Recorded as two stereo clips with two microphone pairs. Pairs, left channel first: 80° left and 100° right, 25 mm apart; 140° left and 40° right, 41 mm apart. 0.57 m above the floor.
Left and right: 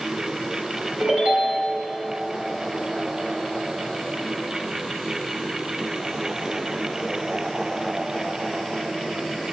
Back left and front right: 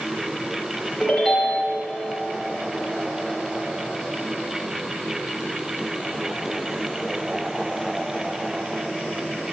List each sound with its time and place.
1.0 s a ringtone: 135° right, 3.5 m